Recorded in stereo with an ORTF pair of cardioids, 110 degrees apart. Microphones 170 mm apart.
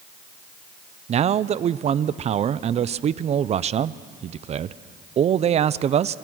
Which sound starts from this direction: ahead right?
A man speaking, at 1.1 s.